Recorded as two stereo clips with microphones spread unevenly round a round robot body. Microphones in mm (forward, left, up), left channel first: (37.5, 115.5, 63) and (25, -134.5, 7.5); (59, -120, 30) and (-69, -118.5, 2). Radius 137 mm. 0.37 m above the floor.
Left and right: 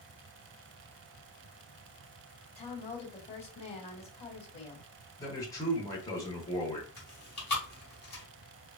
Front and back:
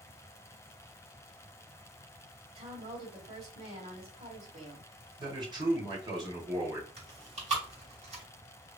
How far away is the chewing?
About 2 m.